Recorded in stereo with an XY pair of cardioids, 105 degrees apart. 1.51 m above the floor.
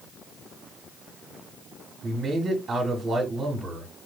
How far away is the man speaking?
About 1.6 m.